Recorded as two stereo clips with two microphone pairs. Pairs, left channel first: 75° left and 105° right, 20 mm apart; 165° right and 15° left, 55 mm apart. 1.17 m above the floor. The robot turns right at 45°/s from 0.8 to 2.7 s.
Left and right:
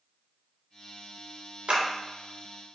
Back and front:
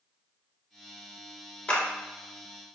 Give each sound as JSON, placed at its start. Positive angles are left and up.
{"t": 1.7, "sound": "a clap", "azimuth_deg": -100, "distance_m": 0.6}